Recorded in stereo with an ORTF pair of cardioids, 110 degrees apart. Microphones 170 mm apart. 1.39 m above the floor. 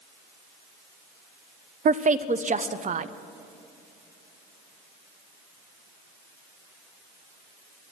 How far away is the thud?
I don't hear a thud.